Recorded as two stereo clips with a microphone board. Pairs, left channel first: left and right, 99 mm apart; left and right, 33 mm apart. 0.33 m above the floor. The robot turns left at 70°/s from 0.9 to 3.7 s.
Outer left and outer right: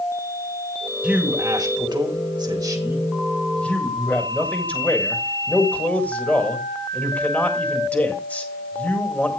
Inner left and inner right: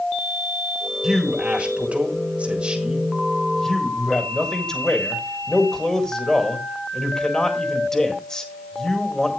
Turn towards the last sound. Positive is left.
turn(degrees=160)